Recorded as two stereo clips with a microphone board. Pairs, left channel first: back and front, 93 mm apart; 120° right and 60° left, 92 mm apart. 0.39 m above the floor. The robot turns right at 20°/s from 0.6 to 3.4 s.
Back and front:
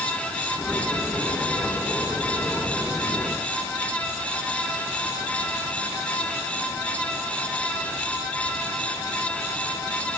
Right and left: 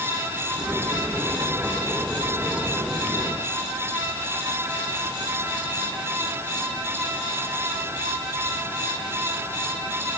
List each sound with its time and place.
Only background noise.